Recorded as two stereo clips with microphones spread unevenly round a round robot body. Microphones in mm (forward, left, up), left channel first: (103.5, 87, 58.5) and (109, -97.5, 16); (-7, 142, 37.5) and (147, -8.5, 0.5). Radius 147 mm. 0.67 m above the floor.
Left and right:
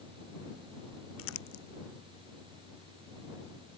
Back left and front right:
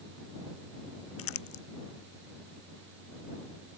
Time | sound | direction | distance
1.2 | crumpling | 125° left | ?